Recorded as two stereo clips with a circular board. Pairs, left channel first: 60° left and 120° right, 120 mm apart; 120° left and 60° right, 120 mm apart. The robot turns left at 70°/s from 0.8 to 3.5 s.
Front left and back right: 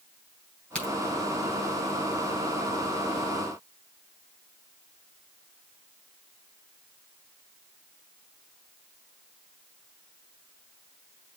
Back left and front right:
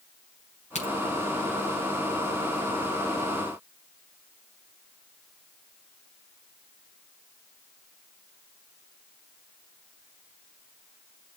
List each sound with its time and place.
0.8 s a crack: 140° left, 5 m; by 0.9 s 130° left, 5 m